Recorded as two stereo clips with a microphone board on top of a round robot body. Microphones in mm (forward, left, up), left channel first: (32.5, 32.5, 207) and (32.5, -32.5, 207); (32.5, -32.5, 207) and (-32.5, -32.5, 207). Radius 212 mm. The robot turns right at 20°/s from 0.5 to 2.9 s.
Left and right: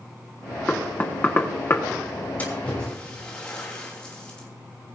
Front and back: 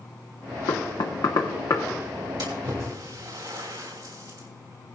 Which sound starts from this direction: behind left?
A splash, at 2.4 s.